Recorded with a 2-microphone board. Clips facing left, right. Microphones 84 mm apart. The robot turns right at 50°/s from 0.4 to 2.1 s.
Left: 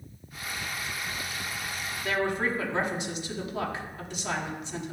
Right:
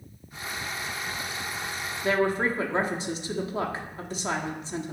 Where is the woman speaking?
35° right (ahead or behind), 1.0 m.